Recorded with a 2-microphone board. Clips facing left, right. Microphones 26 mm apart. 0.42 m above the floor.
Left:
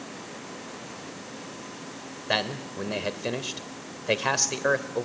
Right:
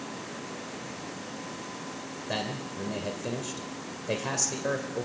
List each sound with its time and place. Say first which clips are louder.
2.3 s a man speaking: left 6 dB; 45° left (ahead or behind), 1.5 m